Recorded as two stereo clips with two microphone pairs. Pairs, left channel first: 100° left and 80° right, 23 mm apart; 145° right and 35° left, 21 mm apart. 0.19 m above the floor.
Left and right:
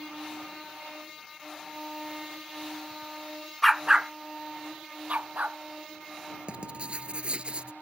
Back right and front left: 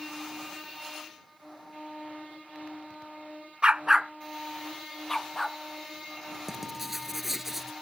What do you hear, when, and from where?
3.6 s a dog barking: 15° left; by 5.6 s 75° right
6.5 s writing: 40° right